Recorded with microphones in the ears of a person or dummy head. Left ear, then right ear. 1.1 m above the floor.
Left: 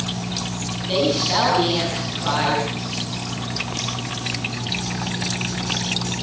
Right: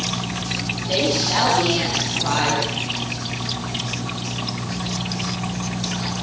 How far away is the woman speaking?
About 8 m.